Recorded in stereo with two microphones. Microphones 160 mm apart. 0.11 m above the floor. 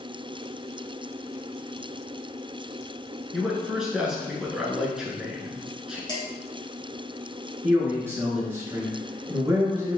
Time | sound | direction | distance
3.3 | a man speaking | 5° right (ahead or behind) | 1.2 m
6.1 | dishes clattering | 25° left (ahead or behind) | 1.9 m
7.6 | a man speaking | 15° right (ahead or behind) | 1.3 m